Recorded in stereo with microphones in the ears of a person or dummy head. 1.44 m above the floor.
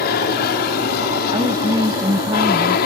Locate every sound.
0.0 s an aircraft: 65° left (ahead or behind)
1.3 s a woman speaking: 10° right (ahead or behind)